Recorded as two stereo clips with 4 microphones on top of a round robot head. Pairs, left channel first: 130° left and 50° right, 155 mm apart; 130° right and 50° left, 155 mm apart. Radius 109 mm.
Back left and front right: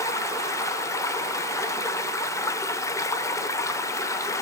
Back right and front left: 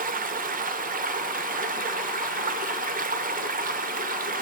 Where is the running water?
60° left, 0.9 m.